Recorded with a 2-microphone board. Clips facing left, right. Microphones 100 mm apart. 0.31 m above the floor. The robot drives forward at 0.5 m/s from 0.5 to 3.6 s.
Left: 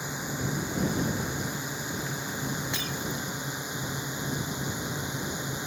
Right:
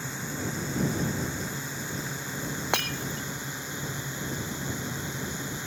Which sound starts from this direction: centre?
A drone, at 0.0 s.